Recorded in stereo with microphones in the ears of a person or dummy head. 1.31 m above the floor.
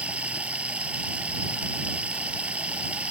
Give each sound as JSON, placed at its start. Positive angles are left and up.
{"t": 0.0, "sound": "running water", "side_deg": -5}